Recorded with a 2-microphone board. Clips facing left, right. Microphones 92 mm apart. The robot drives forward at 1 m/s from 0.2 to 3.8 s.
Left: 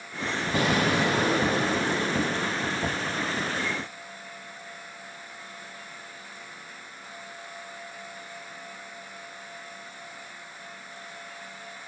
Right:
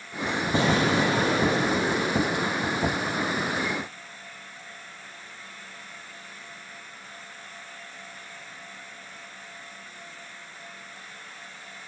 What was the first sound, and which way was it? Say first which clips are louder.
An explosion: right 1 dB; 25° right (ahead or behind).